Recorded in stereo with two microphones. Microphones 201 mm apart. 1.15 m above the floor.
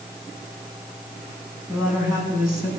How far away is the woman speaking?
About 7.5 m.